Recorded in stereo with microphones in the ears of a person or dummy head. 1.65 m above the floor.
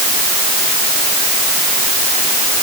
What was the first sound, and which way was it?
Only background noise.